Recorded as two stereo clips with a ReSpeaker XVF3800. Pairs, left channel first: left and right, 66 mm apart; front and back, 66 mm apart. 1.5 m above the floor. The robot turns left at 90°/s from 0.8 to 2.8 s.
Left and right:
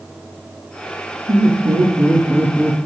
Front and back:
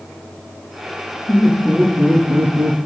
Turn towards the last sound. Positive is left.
turn(degrees=160)